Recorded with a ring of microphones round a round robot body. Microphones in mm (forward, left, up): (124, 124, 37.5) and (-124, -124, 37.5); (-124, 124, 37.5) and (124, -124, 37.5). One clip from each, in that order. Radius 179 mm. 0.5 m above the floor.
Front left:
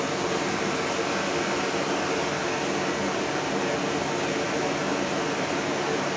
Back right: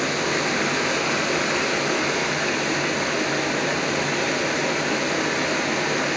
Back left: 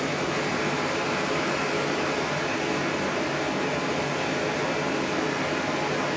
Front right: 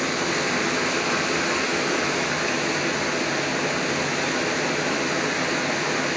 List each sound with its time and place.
0.0 s running water: 95° right, 2 m